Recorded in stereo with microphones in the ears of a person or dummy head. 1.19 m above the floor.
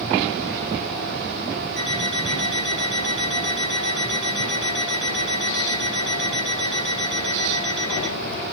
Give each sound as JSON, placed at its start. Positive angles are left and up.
{"t": 1.8, "sound": "an alarm clock", "side_deg": 5, "distance_m": 3.5}